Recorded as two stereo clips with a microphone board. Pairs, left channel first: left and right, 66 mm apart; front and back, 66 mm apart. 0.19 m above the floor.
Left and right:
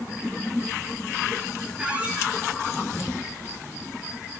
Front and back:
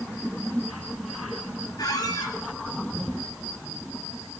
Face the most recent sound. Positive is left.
turn(degrees=-15)